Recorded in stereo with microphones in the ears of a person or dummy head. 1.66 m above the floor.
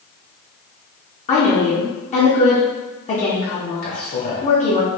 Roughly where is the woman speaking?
Left.